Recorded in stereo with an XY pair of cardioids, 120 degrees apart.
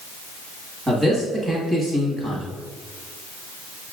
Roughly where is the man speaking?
Ahead.